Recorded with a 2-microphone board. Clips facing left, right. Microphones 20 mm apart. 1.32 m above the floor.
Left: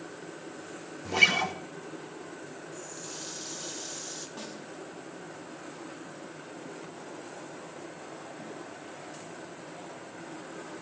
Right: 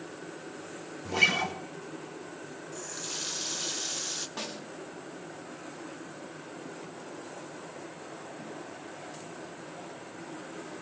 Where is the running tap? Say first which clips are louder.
Right 7 dB; 40° right (ahead or behind), 0.6 m.